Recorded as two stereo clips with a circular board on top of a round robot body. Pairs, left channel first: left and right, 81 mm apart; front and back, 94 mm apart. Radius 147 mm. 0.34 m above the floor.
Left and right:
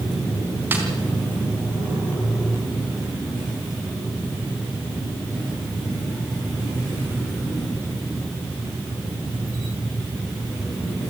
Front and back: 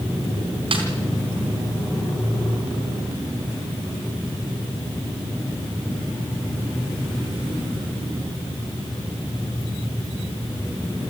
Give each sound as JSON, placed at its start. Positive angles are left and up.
{"t": 0.7, "sound": "a snare drum", "azimuth_deg": -155, "distance_m": 4.0}